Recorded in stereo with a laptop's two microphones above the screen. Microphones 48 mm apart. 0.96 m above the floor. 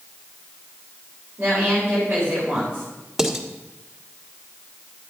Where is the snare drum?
I don't hear a snare drum.